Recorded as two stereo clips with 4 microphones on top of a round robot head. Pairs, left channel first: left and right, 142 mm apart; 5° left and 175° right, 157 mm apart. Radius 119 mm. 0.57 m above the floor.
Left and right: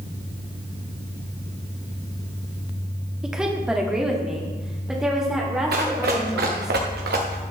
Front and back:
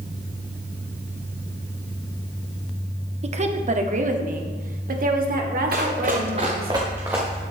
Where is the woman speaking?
175° right, 1.5 m.